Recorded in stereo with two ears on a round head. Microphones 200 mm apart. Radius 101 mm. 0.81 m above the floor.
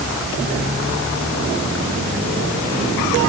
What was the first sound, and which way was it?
Only background noise.